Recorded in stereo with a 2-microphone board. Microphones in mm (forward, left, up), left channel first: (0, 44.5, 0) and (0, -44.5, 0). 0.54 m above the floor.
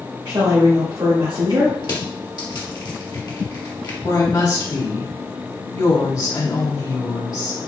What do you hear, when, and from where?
0.2 s a woman speaking: 55° right (ahead or behind), 1.7 m
1.8 s crushing: 50° left (ahead or behind), 1.3 m
4.0 s a woman speaking: 45° left (ahead or behind), 1.7 m